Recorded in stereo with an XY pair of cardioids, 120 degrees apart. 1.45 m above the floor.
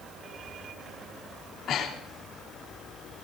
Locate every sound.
1.4 s breathing: 55° left, 3 m